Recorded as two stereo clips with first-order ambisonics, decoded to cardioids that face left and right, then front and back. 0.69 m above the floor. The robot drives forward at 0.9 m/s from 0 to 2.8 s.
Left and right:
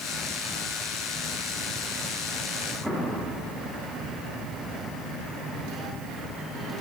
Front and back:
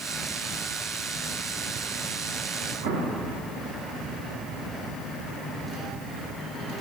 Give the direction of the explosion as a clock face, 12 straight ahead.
6 o'clock.